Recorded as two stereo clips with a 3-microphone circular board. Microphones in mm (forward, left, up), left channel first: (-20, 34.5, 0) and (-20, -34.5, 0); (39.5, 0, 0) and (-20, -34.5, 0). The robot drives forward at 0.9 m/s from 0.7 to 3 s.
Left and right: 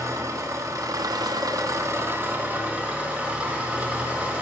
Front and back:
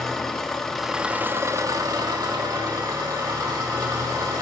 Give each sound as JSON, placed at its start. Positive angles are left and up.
{"t": 0.0, "sound": "an engine running", "azimuth_deg": -55, "distance_m": 0.9}